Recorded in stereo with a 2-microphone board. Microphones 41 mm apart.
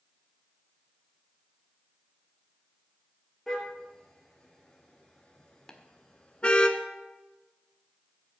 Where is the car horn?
10° left (ahead or behind), 3 m; by 6.7 s 30° left (ahead or behind), 1.6 m.